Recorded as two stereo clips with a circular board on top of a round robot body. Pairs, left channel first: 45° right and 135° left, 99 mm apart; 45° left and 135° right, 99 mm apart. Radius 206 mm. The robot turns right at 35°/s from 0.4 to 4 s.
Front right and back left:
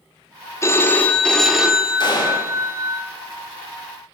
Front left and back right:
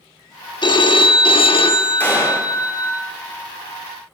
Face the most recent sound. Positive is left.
turn(degrees=45)